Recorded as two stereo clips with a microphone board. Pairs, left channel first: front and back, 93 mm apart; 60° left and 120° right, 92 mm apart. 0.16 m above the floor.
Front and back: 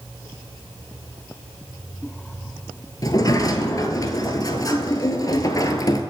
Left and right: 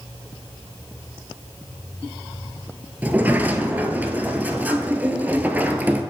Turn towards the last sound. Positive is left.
turn(degrees=-50)